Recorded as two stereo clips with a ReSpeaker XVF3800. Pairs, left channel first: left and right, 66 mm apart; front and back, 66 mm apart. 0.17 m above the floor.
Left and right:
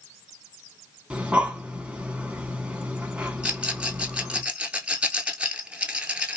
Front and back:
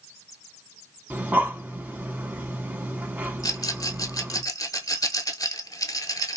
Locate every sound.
1.1 s breathing: 145° right, 0.7 m
3.4 s a rattle: 15° right, 0.6 m